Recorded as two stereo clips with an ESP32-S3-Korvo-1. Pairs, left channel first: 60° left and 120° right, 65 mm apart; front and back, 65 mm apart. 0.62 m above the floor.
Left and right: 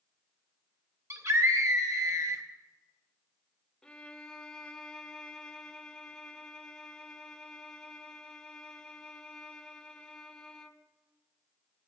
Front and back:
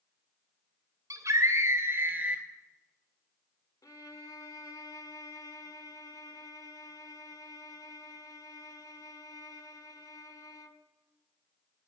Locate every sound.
1.1 s a scream: 155° right, 3 m; by 2.4 s 110° right, 1.8 m
3.8 s a violin: 15° right, 0.9 m